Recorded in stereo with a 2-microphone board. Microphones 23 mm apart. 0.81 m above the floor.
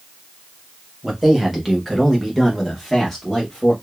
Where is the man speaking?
10° right (ahead or behind), 1.2 m; by 3.7 s 10° left (ahead or behind), 1.2 m.